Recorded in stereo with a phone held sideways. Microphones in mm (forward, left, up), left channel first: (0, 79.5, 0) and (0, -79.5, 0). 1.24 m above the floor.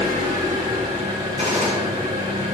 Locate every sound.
0.0 s an engine running: 60° right (ahead or behind), 3 m
1.4 s a gunshot: 55° right (ahead or behind), 3 m